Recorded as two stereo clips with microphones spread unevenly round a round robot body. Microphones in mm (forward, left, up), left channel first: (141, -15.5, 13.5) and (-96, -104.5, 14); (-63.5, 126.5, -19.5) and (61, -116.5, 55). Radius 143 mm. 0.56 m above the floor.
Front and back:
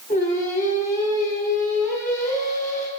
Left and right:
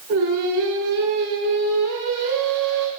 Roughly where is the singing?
Ahead right.